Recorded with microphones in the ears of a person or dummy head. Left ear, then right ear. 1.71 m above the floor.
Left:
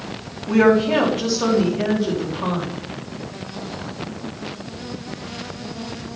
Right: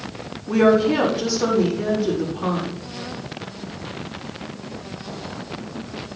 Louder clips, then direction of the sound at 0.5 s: Left 1 dB; 40° left (ahead or behind).